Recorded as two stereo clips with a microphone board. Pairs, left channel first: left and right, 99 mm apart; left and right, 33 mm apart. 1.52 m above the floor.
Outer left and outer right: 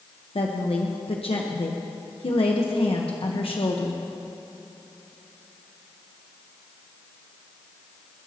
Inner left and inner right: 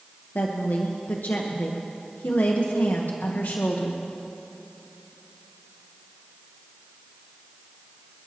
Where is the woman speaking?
70° left (ahead or behind), 1.2 m.